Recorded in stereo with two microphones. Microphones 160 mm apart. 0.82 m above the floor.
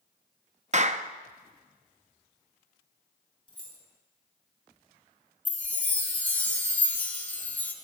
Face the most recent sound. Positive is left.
turn(degrees=10)  # may be behind; listen again after turning